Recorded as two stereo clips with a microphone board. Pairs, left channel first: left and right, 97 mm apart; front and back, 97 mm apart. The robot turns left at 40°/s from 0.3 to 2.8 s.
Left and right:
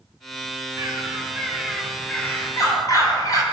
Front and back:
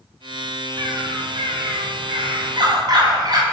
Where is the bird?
140° right, 3 m; by 3.4 s 140° left, 3 m.